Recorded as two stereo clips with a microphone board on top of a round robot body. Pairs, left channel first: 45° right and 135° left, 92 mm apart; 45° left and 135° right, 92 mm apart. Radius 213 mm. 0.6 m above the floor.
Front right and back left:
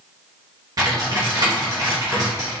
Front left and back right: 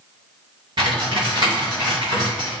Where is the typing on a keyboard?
175° right, 1.3 m.